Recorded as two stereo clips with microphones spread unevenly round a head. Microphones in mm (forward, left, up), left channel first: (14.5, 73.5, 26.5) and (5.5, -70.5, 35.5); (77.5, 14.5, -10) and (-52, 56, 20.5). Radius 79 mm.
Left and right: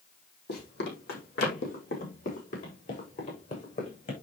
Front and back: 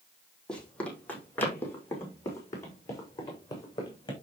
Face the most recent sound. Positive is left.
turn(degrees=45)